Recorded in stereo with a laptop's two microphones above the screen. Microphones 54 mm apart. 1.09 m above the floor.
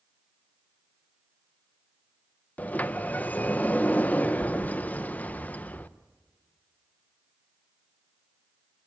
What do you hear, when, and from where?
2.6 s a sliding door: 30° left (ahead or behind), 0.7 m